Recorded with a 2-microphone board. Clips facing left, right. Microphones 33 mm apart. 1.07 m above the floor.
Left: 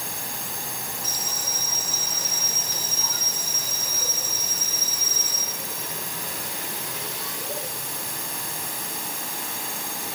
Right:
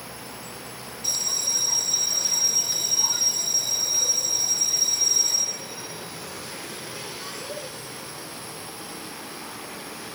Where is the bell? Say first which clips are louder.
Even; 5° left (ahead or behind).